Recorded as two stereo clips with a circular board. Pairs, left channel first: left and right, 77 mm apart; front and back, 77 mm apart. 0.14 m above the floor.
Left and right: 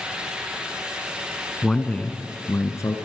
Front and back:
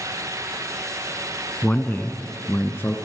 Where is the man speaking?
20° left, 1.1 m; by 3.0 s 55° left, 1.7 m.